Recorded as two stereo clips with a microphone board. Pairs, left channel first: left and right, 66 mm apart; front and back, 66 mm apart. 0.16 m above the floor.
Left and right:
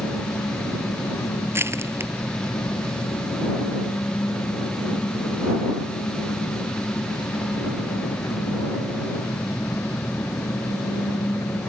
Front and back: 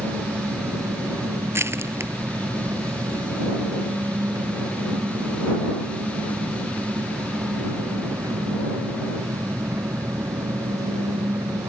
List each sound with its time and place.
0.0 s an engine running: 140° left
1.5 s crushing: 135° right